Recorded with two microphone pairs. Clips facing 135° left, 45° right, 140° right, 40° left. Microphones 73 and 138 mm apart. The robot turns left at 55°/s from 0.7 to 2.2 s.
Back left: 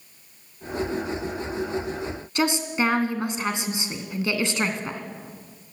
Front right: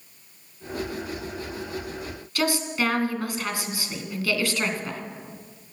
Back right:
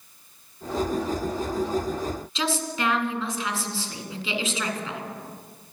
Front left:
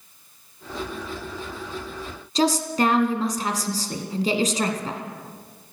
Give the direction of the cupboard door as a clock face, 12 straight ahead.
I don't hear a cupboard door.